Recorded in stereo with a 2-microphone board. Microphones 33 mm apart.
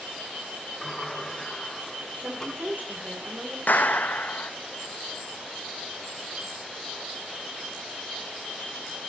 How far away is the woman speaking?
About 2.5 m.